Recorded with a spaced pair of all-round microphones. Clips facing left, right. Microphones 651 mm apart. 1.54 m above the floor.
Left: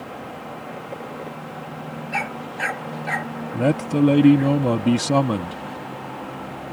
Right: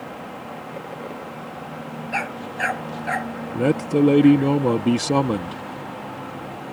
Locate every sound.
2.1 s a dog barking: 30° left (ahead or behind)
3.5 s a man speaking: 10° left (ahead or behind)